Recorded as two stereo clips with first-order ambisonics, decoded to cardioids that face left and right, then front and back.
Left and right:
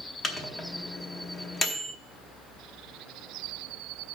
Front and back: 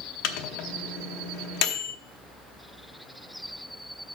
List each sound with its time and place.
0.2 s a microwave: 15° left, 0.9 m